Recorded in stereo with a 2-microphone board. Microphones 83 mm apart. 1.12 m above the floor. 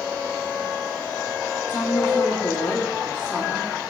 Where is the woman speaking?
30° left (ahead or behind), 1.7 m.